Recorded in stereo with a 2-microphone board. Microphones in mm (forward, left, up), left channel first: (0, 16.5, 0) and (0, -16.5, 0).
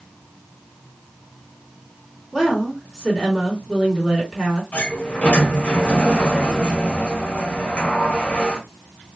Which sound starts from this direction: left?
A sliding door, at 4.7 s.